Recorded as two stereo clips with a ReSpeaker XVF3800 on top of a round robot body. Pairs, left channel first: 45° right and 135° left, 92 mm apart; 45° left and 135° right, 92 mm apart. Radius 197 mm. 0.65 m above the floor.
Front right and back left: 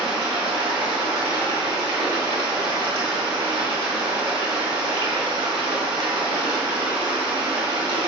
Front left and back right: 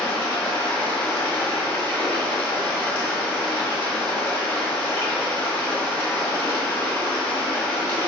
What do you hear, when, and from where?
0.0 s running water: 120° left, 1.8 m